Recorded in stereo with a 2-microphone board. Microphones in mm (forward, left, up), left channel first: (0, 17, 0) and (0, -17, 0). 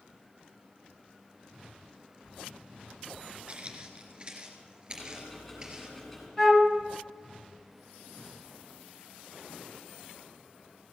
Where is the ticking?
15° left (ahead or behind), 5 m.